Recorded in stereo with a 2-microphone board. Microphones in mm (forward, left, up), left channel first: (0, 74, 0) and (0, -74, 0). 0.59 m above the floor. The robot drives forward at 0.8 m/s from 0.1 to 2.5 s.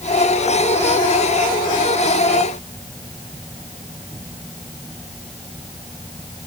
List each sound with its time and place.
Only background noise.